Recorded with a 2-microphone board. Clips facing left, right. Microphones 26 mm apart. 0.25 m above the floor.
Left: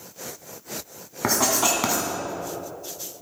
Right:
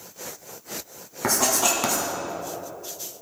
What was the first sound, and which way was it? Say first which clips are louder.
Writing: left 1 dB; 15° left (ahead or behind).